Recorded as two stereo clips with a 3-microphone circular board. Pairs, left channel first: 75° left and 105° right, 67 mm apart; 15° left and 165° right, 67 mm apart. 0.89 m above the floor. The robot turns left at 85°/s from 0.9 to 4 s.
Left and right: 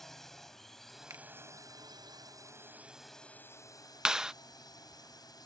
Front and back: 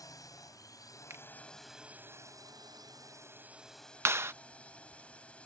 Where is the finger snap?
130° right; by 1.2 s 145° right.